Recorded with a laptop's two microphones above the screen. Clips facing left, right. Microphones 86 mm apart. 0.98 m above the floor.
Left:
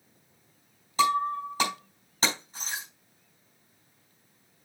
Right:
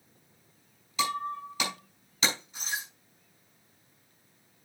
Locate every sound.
1.0 s breaking glass: 40° left (ahead or behind), 4.5 m